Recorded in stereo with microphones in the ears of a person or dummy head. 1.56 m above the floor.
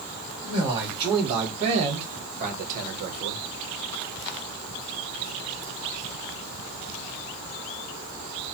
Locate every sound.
0.4 s a man speaking: 25° right (ahead or behind), 2 m; by 3.5 s 60° right (ahead or behind), 0.8 m